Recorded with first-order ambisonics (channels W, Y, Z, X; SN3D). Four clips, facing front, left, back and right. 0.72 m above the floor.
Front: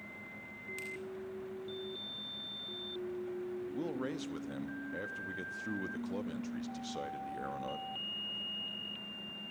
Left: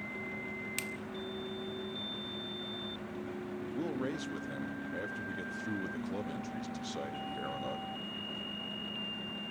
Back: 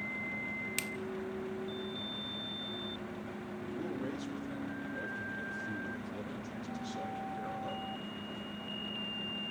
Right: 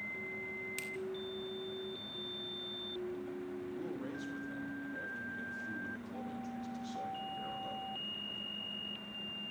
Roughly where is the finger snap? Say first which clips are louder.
Left 3 dB, back 4 dB; behind left.